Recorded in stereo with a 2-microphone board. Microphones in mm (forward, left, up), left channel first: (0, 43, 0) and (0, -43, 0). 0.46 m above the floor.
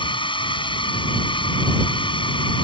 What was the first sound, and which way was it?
A drone, 70° left (ahead or behind).